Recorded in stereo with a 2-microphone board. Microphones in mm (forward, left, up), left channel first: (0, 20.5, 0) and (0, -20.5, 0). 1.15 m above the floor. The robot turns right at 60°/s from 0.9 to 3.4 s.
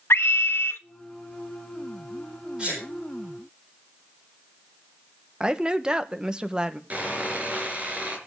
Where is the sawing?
35° right (ahead or behind), 4.5 m.